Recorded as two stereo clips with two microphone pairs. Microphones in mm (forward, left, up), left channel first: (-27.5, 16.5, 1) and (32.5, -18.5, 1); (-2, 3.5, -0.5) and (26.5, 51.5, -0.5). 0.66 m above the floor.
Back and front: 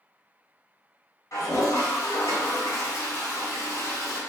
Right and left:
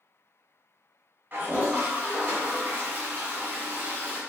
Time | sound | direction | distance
1.3 | a toilet flushing | 110° left | 1.6 m